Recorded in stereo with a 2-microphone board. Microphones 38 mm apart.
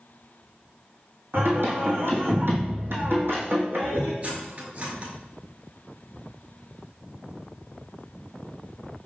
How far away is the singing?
About 1.4 m.